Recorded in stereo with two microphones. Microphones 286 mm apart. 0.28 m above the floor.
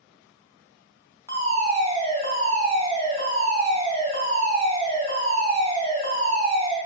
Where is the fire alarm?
20° right (ahead or behind), 2 m.